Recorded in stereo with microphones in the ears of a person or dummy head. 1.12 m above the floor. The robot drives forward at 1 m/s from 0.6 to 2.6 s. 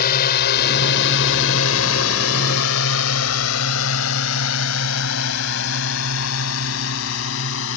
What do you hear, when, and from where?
0.0 s a drone: 50° left (ahead or behind); by 7.8 s 75° left (ahead or behind)